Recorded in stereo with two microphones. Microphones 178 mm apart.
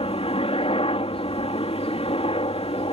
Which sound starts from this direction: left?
A helicopter, at 0.0 s.